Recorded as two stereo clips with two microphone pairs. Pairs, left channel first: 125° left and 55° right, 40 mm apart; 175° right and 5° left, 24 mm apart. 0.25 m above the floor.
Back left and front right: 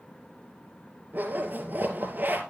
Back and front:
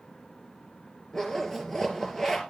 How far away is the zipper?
About 2.5 m.